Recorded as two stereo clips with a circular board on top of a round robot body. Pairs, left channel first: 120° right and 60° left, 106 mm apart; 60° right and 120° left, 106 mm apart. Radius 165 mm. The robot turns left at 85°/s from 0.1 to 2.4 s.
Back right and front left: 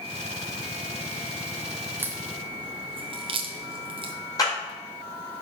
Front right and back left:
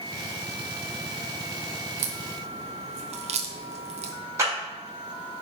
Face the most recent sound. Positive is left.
turn(degrees=-175)